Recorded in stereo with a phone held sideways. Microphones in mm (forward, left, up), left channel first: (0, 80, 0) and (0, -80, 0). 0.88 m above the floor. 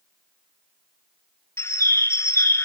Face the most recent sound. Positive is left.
turn(degrees=15)  # may be behind; listen again after turning